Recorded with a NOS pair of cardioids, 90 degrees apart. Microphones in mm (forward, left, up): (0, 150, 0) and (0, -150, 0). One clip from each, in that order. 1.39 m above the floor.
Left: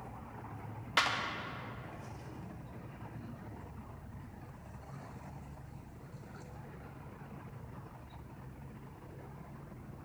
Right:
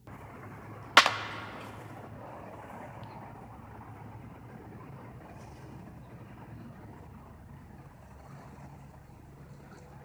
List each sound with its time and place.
1.0 s a clap: 50° right, 0.5 m